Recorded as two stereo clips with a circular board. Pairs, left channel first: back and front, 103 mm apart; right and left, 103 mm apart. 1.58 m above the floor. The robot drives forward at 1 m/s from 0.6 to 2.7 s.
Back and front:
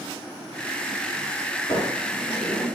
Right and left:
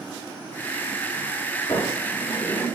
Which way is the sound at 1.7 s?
140° right.